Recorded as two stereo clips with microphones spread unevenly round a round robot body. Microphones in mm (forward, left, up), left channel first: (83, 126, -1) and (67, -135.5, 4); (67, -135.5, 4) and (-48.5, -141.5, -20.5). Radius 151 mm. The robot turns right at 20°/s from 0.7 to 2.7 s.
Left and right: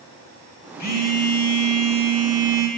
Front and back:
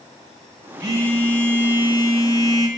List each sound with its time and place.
0.8 s a phone buzzing: 120° left, 1.0 m; by 2.7 s 155° left, 1.0 m